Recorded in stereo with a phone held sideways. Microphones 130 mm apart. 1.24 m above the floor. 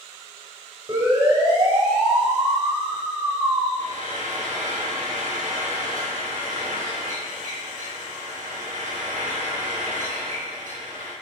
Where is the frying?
80° right, 5.5 m.